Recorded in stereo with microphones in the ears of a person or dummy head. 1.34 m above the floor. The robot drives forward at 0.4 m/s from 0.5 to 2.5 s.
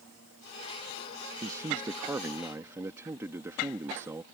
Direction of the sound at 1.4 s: 20° right (ahead or behind).